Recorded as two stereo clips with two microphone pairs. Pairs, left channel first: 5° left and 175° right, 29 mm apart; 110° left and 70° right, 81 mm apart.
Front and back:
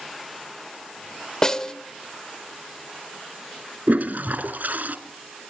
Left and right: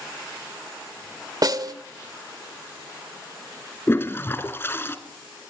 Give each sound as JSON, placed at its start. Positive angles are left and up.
{"t": 1.4, "sound": "a snare drum", "azimuth_deg": -60, "distance_m": 1.6}
{"t": 3.9, "sound": "a toilet flushing", "azimuth_deg": 170, "distance_m": 2.0}